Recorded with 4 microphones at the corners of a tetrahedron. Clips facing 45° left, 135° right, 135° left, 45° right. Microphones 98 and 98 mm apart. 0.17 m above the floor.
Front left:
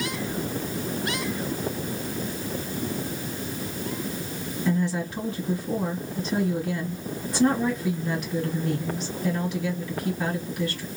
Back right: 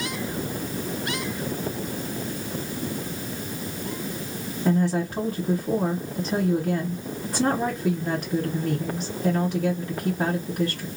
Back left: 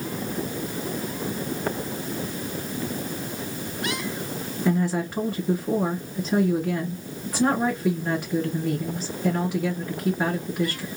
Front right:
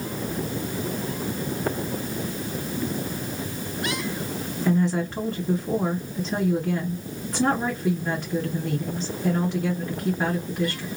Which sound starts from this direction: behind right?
A woman speaking, at 4.7 s.